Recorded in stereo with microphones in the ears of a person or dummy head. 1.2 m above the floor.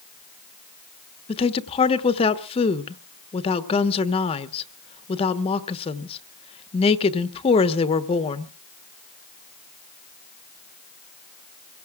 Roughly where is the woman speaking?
Left.